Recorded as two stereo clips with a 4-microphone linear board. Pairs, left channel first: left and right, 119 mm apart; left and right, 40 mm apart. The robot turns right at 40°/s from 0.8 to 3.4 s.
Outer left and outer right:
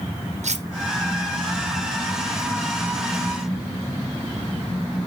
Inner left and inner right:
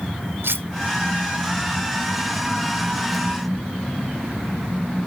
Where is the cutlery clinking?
75° right (ahead or behind), 0.6 m.